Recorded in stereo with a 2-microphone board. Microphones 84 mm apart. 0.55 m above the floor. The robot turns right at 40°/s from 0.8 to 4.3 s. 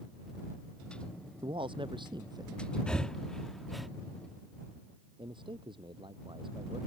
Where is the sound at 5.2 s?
75° right (ahead or behind).